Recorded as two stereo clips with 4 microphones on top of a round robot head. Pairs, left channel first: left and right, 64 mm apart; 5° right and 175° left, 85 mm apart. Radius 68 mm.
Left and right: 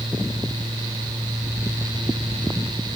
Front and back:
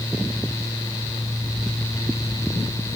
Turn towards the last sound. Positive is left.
No sound to turn to.